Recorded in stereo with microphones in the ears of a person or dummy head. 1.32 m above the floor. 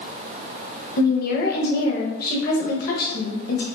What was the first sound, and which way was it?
A woman speaking, 55° left (ahead or behind).